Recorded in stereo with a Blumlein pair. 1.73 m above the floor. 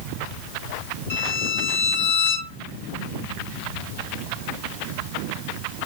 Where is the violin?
60° left, 1.8 m.